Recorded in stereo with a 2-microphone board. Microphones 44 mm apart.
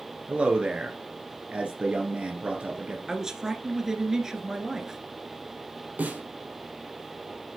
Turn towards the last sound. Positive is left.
turn(degrees=-40)  # may be behind; listen again after turning